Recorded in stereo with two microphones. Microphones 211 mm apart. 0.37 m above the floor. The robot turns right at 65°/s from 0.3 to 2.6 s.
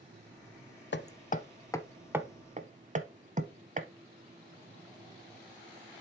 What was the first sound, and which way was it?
Hammering, 65° left (ahead or behind).